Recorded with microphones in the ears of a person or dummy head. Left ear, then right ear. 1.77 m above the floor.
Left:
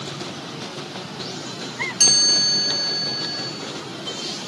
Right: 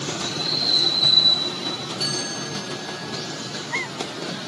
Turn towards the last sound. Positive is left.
turn(degrees=50)  # may be behind; listen again after turning